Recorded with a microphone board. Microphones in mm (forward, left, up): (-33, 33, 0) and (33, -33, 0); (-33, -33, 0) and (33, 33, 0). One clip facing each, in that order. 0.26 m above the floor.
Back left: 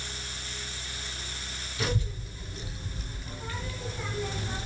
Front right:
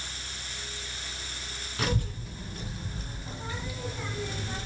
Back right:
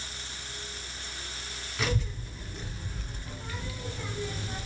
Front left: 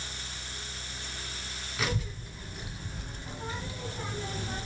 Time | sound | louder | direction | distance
1.8 | a child speaking | front right 1 dB, back right 2 dB | 40° right | 1.6 m